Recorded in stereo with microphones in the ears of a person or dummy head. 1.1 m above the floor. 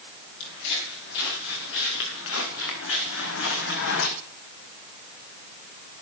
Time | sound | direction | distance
0.4 | footsteps | 75° left (ahead or behind) | 7 m